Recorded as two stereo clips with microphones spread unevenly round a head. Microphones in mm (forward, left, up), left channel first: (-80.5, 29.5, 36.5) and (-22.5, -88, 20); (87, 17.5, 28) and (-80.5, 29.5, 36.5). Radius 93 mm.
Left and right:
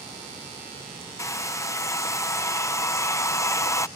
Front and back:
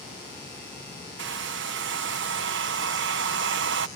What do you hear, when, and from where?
1.2 s a hair dryer: 175° right